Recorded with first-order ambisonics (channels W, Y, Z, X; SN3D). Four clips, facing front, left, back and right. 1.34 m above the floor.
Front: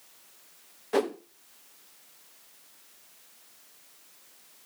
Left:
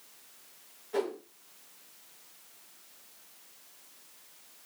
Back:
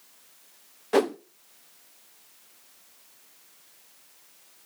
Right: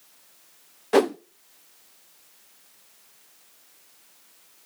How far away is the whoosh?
About 0.6 m.